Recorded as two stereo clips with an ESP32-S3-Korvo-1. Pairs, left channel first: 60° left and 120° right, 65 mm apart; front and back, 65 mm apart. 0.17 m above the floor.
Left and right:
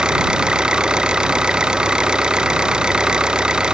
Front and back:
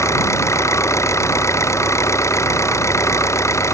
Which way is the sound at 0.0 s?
40° right.